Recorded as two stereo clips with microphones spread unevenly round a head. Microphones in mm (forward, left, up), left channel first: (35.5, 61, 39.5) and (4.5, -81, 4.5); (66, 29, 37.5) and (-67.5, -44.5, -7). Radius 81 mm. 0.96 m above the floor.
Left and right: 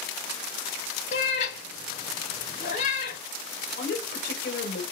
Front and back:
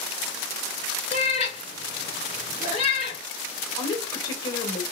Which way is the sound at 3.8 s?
100° left.